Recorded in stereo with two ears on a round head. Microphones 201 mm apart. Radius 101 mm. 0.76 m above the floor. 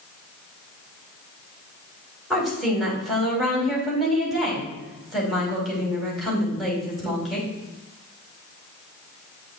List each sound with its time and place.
2.3 s a woman speaking: centre (ahead or behind), 5 m